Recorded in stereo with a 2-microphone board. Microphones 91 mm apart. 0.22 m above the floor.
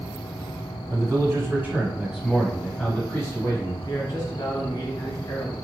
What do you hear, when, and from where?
0.9 s a man speaking: 35° right (ahead or behind), 1.4 m; by 3.7 s 30° left (ahead or behind), 1.3 m
3.8 s a man speaking: 45° left (ahead or behind), 1.5 m